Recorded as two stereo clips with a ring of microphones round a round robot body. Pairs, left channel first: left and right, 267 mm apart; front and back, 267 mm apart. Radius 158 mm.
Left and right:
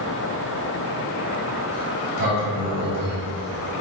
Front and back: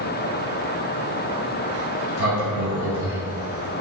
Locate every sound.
1.7 s a sliding door: 35° right, 2.5 m